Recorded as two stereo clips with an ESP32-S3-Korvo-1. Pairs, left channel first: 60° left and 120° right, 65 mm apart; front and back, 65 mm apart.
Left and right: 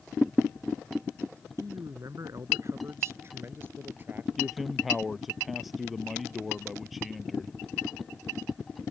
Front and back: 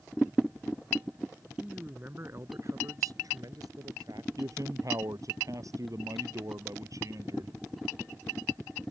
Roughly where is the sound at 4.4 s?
Behind left.